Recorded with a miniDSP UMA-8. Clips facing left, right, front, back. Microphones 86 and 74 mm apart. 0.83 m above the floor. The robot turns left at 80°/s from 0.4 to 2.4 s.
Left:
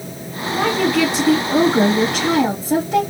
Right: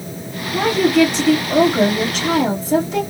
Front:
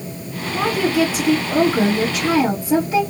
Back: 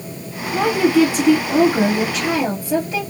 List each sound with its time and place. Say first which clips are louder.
0.5 s a woman speaking: right 3 dB, back 3 dB; 145° right, 2.5 m; by 3.0 s 65° left, 2.5 m